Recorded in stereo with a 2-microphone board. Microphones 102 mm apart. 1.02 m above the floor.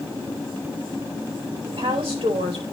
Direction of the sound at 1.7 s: 75° right (ahead or behind).